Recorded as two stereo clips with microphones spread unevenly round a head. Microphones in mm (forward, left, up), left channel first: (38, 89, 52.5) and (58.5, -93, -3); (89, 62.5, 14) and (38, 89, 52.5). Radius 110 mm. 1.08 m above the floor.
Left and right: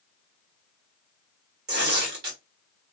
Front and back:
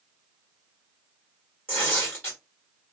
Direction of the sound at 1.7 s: 85° right.